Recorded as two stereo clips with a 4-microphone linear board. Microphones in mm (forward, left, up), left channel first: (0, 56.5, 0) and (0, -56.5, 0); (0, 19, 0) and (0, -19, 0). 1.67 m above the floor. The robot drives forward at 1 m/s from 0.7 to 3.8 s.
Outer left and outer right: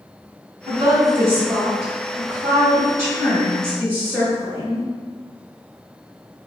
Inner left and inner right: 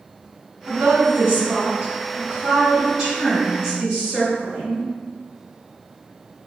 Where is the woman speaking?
40° right (ahead or behind), 1.1 m; by 4.9 s 10° right (ahead or behind), 4 m.